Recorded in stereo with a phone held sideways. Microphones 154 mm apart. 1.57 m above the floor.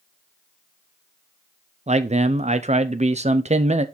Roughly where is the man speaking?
Right.